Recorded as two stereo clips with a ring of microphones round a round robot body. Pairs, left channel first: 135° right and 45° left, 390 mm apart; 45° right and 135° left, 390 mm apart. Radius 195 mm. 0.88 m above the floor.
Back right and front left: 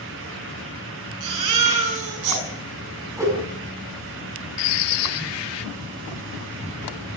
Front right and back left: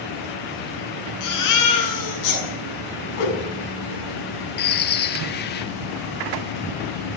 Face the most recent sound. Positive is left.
turn(degrees=-110)